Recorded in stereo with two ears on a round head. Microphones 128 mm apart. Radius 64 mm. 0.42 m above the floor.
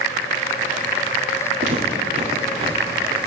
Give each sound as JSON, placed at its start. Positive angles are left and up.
{"t": 1.6, "sound": "footsteps", "side_deg": -50, "distance_m": 3.5}